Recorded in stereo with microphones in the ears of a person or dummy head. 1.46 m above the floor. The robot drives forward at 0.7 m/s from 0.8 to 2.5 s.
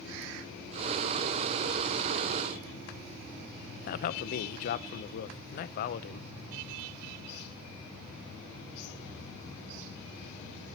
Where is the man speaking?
50° left (ahead or behind), 0.7 m.